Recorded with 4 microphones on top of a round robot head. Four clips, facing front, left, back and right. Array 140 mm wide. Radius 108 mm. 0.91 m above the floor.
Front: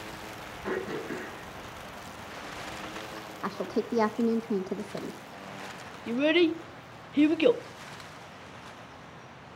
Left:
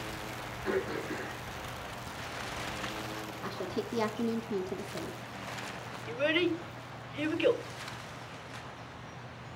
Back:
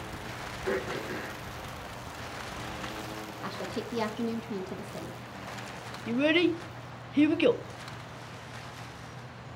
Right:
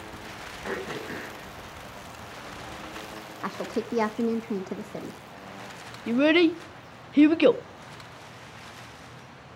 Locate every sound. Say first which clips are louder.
0.6 s throat clearing: left 1 dB, even; 60° right, 8 m
3.4 s a woman speaking: right 6 dB, front 6 dB; 45° right, 1.4 m
6.1 s a child speaking: right 10 dB, front 1 dB; 80° right, 1.0 m